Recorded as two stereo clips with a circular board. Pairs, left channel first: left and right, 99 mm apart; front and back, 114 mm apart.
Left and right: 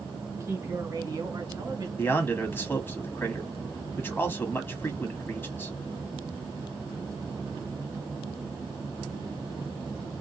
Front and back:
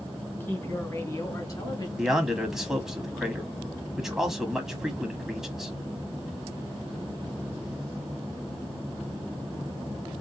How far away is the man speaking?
About 1.0 m.